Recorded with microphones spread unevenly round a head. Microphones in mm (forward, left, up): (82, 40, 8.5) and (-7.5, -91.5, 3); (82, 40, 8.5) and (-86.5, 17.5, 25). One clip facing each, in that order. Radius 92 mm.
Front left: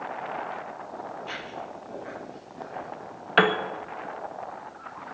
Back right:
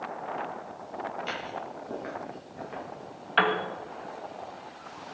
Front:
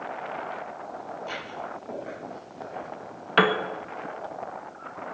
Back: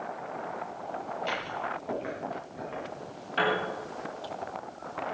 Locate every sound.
1.2 s footsteps: 145° right, 9 m; by 3.3 s 150° right, 7.5 m
3.4 s a piano: 20° left, 1.6 m